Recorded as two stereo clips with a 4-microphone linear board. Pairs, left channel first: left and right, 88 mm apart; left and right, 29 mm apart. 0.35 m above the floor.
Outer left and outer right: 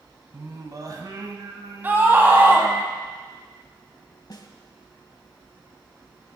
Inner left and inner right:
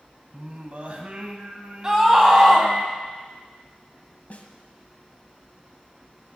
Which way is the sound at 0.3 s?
45° right (ahead or behind).